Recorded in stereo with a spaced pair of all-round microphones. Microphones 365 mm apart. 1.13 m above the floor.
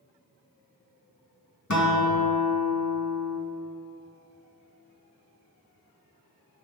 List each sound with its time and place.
1.7 s a guitar: 50° left (ahead or behind), 1.5 m